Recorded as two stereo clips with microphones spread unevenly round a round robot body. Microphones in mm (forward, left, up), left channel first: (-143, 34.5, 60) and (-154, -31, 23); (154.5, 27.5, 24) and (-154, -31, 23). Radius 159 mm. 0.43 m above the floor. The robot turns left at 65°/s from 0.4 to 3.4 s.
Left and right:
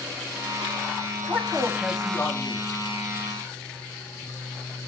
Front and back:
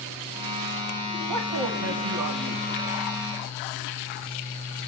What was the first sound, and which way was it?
A man speaking, 140° right.